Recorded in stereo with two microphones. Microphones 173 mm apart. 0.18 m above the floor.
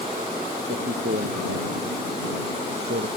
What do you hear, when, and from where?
0.7 s a man speaking: 75° right (ahead or behind)